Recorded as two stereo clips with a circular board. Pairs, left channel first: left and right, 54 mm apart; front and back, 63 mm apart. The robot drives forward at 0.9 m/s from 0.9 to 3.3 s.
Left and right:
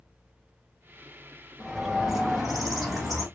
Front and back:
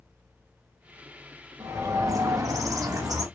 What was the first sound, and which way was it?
A bird, 175° right.